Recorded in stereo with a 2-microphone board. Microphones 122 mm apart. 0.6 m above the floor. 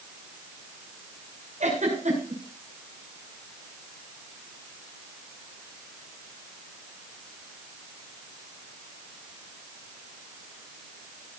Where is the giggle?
75° right (ahead or behind), 6.5 m.